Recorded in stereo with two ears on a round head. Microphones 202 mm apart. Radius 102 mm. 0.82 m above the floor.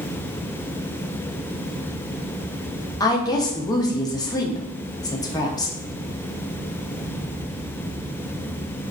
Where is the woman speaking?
20° left (ahead or behind), 0.7 m.